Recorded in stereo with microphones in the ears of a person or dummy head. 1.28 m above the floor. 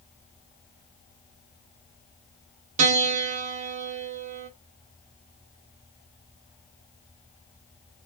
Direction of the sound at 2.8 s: 35° right (ahead or behind).